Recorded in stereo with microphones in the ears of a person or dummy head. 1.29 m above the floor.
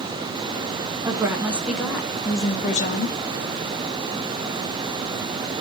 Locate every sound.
1.1 s a woman speaking: 15° right (ahead or behind), 1.5 m; by 3.2 s 50° left (ahead or behind), 1.0 m